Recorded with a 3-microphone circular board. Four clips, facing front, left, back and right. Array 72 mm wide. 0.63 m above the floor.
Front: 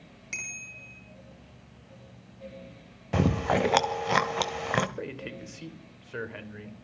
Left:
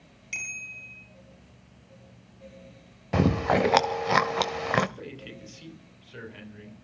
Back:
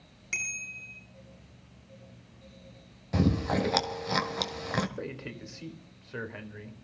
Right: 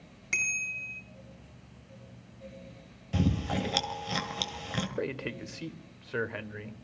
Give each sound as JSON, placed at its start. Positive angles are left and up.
{"t": 0.3, "sound": "a bicycle bell", "azimuth_deg": -95, "distance_m": 8.0}
{"t": 3.1, "sound": "chewing", "azimuth_deg": 70, "distance_m": 1.8}
{"t": 5.0, "sound": "a man speaking", "azimuth_deg": -80, "distance_m": 3.0}